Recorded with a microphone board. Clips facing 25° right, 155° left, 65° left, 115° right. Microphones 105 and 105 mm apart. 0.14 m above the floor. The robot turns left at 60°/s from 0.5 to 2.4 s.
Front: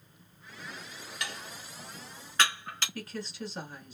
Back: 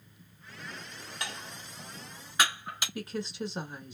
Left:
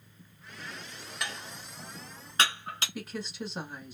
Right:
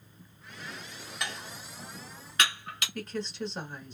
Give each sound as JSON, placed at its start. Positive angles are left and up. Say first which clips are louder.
{"t": 1.2, "sound": "dishes clattering", "louder": "even, even", "azimuth_deg": 160, "distance_m": 0.8}
{"t": 3.0, "sound": "a woman speaking", "louder": "back 6 dB, right 6 dB", "azimuth_deg": 140, "distance_m": 1.1}